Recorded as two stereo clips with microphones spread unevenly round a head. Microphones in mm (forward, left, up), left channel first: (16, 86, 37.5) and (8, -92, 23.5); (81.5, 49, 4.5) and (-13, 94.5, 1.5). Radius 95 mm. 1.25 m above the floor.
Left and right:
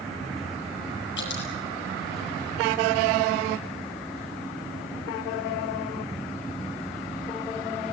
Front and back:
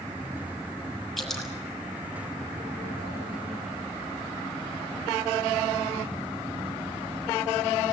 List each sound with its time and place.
1.2 s dripping: 60° left, 6.5 m